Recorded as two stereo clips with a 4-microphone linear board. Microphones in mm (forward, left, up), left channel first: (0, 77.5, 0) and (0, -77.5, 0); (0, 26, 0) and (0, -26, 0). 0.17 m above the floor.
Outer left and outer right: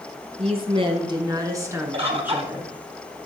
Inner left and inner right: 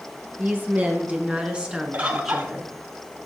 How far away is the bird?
About 1.2 m.